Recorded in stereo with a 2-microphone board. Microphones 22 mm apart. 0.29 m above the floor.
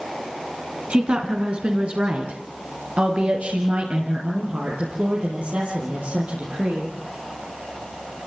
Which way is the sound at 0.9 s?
65° right (ahead or behind).